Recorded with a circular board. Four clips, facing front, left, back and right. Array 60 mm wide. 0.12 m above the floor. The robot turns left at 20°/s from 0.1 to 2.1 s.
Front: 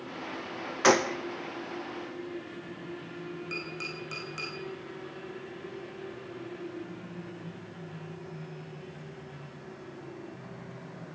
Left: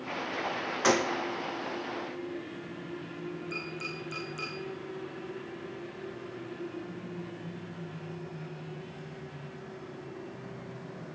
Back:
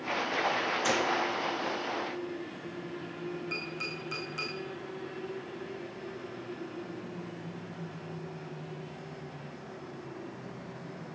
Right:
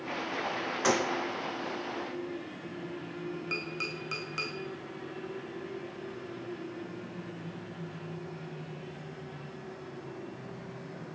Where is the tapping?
80° right, 5 m.